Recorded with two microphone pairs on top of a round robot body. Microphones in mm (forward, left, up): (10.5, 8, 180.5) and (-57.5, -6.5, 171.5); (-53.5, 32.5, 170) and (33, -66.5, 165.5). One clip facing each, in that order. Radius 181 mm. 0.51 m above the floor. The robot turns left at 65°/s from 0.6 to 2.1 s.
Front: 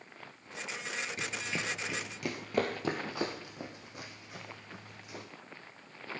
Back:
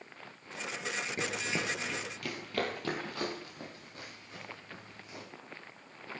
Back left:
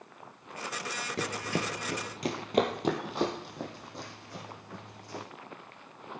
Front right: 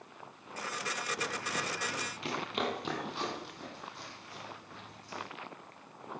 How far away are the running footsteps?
About 0.6 m.